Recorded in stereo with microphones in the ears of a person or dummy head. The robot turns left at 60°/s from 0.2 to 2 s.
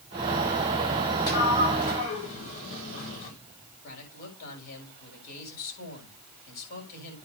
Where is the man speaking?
50° left (ahead or behind), 7.5 m.